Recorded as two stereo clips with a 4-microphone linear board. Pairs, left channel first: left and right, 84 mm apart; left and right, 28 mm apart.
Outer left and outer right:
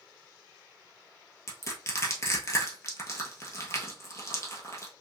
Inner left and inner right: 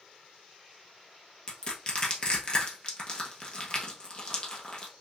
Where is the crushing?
35° left (ahead or behind), 1.0 m.